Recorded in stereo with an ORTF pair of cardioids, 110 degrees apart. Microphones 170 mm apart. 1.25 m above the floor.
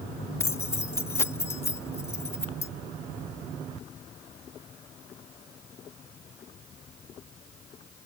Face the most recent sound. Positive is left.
turn(degrees=15)